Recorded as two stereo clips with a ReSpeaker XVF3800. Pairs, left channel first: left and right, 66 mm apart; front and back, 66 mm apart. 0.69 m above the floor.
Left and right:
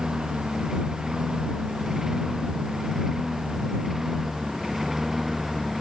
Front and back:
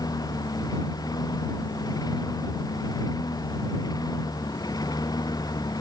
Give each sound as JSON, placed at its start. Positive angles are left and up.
{"t": 0.0, "sound": "a lawn mower", "azimuth_deg": -10}